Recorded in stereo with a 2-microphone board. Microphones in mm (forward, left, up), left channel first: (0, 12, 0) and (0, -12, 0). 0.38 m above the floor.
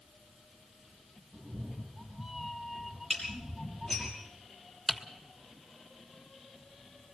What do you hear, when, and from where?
1.3 s a cat meowing: 5° right (ahead or behind), 3 m; by 4.1 s 10° right (ahead or behind), 1.2 m
3.1 s dishes clattering: 20° left (ahead or behind), 6.5 m
4.9 s typing on a keyboard: 5° right (ahead or behind), 1.4 m